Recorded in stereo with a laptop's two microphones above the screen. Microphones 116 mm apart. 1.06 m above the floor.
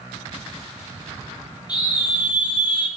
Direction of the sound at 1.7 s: 35° left (ahead or behind).